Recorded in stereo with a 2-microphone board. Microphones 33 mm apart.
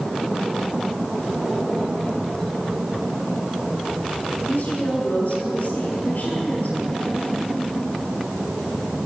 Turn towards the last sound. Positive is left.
turn(degrees=45)  # may be behind; listen again after turning